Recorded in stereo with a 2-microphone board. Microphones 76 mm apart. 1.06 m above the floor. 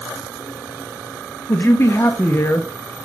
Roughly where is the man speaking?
Left.